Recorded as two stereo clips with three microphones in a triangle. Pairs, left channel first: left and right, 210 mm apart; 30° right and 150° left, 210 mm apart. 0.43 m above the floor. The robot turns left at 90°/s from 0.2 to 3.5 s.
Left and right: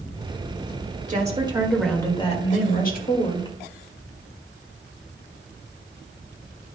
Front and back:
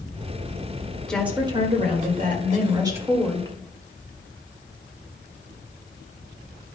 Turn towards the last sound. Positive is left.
turn(degrees=30)